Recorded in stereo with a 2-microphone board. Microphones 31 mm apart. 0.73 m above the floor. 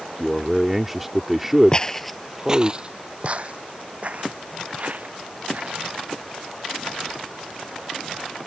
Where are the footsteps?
30° left (ahead or behind); by 5.9 s 50° right (ahead or behind).